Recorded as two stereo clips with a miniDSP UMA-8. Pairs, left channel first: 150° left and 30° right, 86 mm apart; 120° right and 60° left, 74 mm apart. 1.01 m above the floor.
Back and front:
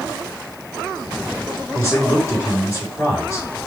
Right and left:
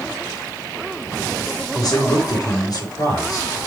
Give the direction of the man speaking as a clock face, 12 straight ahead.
5 o'clock.